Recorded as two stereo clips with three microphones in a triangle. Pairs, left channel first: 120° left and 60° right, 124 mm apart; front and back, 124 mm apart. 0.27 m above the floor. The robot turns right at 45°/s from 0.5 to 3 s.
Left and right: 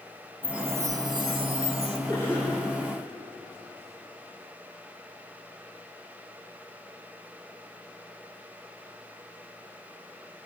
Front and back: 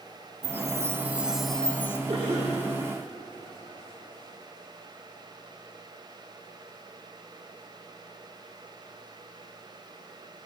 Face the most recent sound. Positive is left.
turn(degrees=-95)